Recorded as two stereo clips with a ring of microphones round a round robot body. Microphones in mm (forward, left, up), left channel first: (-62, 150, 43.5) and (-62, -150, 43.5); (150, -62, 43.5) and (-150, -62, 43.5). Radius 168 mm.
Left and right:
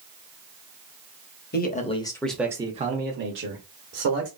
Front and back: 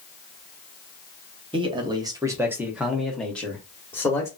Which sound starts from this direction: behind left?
A man speaking, at 1.5 s.